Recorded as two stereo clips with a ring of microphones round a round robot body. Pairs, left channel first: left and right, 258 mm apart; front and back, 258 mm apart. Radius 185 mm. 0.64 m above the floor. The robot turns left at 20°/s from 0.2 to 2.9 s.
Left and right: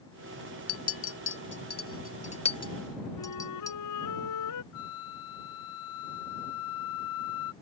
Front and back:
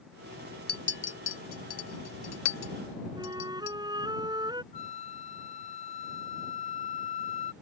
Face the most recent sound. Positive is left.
turn(degrees=65)